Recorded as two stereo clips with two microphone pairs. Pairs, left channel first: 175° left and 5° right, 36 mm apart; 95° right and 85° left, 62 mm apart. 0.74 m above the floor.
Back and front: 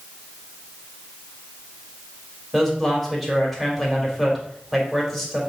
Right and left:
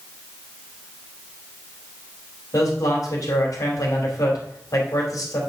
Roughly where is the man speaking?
Right.